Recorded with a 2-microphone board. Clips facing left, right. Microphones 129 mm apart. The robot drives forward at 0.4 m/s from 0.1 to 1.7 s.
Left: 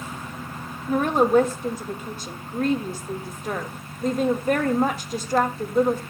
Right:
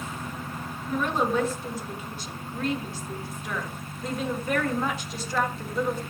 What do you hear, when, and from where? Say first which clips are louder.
0.9 s a woman speaking: left 7 dB; 55° left (ahead or behind), 1.6 m; by 6.0 s 45° left (ahead or behind), 1.8 m